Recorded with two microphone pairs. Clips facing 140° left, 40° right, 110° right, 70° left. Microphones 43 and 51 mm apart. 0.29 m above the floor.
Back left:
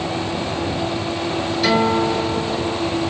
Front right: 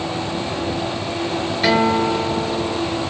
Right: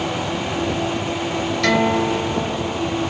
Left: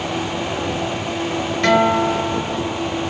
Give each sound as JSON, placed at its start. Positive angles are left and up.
{"t": 1.6, "sound": "a guitar", "azimuth_deg": 10, "distance_m": 1.2}